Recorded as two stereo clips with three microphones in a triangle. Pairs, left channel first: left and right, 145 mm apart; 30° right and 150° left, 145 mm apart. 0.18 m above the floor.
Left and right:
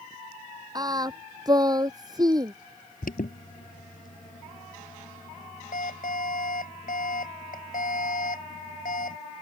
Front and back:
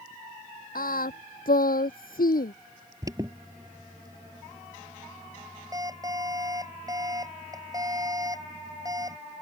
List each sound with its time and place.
0.8 s singing: 25° right
3.0 s an alarm: 85° left